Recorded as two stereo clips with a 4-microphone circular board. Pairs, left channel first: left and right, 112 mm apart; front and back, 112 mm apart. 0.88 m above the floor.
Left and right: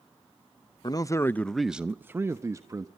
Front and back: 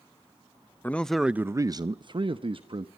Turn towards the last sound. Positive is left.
turn(degrees=-150)